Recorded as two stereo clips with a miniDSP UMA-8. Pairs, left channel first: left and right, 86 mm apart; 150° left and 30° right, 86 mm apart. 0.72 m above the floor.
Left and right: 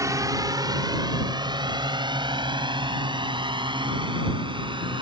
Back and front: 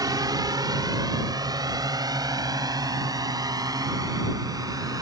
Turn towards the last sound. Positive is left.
turn(degrees=-75)